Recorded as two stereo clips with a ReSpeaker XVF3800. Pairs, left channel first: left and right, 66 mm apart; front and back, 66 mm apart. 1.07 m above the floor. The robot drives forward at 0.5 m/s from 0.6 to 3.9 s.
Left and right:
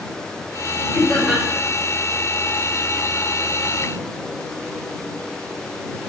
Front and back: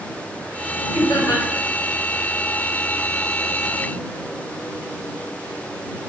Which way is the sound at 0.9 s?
15° left.